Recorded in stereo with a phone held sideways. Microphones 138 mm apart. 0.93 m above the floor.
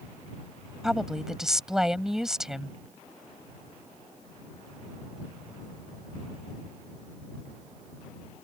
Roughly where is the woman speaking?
Centre.